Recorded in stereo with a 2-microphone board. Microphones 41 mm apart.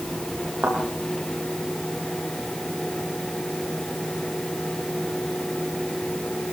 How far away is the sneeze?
I don't hear a sneeze.